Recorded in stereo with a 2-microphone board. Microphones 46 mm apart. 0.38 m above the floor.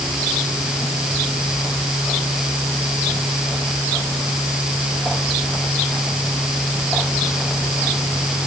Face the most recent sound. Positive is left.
No sound to turn to.